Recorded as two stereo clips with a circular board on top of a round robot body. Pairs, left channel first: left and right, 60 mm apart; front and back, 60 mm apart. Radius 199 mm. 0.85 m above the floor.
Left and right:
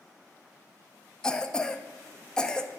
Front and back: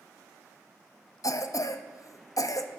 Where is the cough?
10° left, 0.6 m.